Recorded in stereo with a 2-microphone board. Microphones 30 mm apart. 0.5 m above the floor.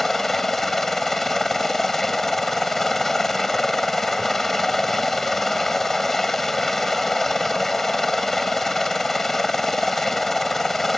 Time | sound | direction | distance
0.0 | a helicopter | 10° left (ahead or behind) | ?